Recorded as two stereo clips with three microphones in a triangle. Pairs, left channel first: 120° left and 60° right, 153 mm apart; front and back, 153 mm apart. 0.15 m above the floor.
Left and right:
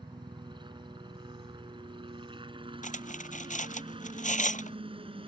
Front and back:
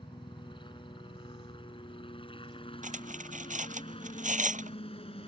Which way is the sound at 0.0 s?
30° right.